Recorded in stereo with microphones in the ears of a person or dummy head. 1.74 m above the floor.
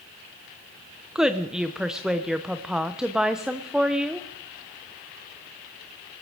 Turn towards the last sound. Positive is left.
turn(degrees=-5)  # may be behind; listen again after turning